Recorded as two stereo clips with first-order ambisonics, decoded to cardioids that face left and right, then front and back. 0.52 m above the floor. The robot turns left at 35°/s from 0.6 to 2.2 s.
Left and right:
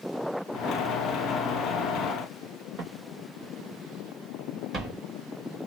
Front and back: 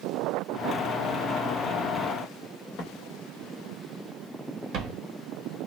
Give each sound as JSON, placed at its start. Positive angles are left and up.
{"t": 2.8, "sound": "footsteps", "azimuth_deg": -35, "distance_m": 0.8}